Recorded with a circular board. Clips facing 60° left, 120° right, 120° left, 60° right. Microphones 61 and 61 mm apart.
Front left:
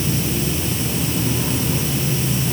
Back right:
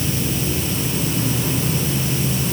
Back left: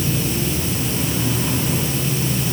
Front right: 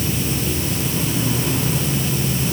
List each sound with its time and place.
Only background noise.